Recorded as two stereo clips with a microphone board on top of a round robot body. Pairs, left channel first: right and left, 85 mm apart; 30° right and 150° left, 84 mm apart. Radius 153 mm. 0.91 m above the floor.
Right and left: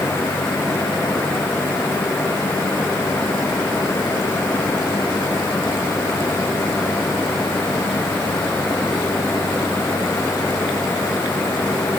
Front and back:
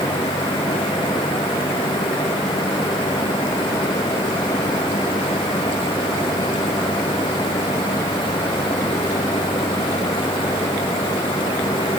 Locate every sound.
Only background noise.